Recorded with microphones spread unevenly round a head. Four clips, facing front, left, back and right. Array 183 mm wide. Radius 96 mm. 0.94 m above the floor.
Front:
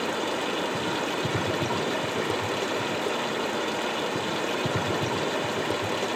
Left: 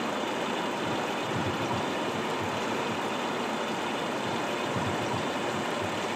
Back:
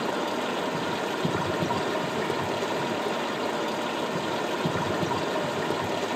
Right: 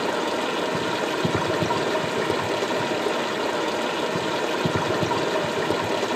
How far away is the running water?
About 3.5 m.